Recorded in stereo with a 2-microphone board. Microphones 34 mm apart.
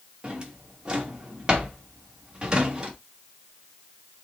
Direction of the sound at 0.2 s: 20° right (ahead or behind).